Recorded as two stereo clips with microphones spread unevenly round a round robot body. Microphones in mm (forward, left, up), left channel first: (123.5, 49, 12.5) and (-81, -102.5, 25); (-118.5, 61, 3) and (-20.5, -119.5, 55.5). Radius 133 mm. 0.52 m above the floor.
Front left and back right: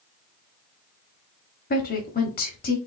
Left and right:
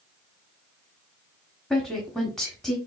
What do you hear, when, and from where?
1.7 s a woman speaking: 50° left, 1.1 m